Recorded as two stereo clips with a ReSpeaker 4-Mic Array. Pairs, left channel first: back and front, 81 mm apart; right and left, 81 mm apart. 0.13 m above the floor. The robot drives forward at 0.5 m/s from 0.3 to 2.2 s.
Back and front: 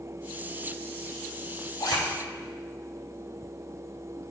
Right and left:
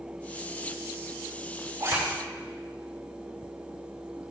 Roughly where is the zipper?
Behind left.